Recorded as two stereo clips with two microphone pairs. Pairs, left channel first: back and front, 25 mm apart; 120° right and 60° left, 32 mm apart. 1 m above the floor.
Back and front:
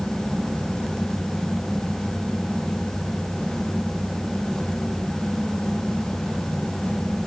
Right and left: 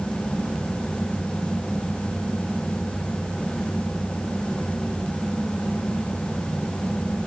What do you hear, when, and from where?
Only background noise.